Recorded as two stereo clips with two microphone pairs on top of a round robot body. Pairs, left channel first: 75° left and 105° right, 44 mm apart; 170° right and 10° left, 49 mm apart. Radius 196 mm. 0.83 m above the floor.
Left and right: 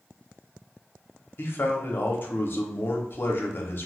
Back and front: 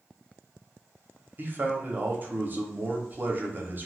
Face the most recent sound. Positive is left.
turn(degrees=55)